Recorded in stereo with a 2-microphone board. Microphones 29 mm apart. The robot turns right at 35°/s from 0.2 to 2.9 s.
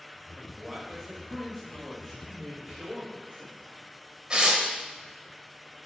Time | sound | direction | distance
0.4 | a man speaking | centre (ahead or behind) | 0.9 m
2.3 | a woman speaking | 20° right (ahead or behind) | 1.2 m
4.3 | tearing paper | 30° right (ahead or behind) | 0.8 m